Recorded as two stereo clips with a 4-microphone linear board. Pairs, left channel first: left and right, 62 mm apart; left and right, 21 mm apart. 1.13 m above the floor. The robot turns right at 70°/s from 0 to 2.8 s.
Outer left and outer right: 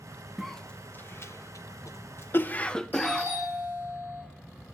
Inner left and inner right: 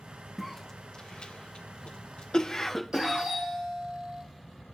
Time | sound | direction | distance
0.4 | a cough | centre (ahead or behind) | 0.6 m
2.9 | a doorbell | 35° right (ahead or behind) | 6 m